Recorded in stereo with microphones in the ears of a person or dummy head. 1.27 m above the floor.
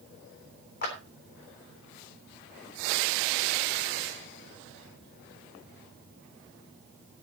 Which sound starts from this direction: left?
A clap, at 0.8 s.